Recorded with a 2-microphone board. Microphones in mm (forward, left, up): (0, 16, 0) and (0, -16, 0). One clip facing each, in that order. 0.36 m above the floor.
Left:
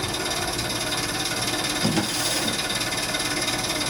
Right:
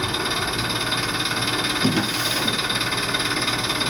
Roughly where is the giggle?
No giggle in this recording.